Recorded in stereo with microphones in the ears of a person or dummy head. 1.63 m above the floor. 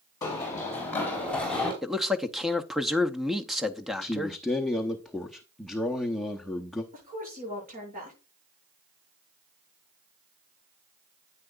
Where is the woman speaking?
40° right (ahead or behind), 7 m.